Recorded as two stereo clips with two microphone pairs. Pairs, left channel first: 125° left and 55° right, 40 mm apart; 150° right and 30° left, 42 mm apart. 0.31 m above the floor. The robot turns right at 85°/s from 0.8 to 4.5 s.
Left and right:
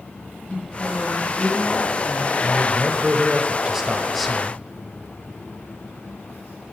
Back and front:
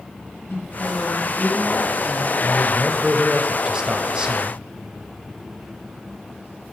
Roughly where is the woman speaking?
Behind.